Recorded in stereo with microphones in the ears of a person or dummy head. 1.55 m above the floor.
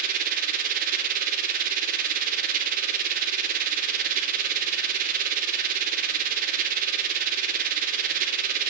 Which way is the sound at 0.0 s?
50° right (ahead or behind).